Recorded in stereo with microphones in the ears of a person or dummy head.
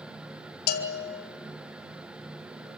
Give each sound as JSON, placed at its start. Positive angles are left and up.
{"t": 0.7, "sound": "a bell", "side_deg": 55, "distance_m": 3.0}